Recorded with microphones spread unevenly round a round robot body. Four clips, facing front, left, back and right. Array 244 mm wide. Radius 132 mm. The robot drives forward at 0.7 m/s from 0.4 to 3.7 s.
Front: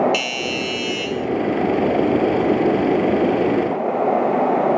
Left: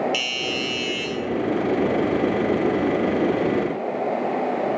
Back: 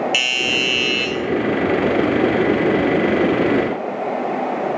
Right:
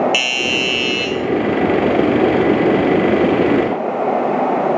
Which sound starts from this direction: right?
A doorbell, at 0.1 s.